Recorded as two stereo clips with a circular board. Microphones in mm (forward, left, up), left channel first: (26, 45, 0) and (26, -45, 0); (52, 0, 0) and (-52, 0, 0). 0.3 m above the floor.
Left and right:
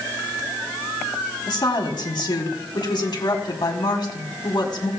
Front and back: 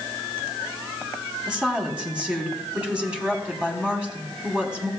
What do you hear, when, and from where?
1.5 s a woman speaking: 100° left, 2.0 m